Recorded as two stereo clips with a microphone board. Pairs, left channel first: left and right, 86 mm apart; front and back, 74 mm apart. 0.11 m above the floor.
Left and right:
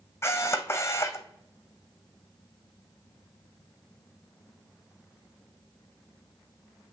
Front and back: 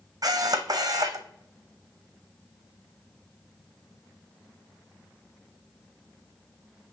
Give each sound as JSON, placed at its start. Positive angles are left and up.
{"t": 0.2, "sound": "a camera shutter", "azimuth_deg": 150, "distance_m": 1.0}